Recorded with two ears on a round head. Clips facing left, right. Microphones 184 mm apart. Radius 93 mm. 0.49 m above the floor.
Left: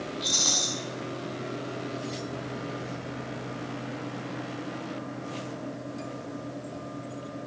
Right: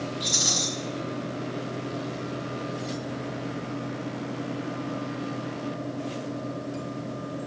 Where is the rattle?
15° right (ahead or behind), 4.5 m.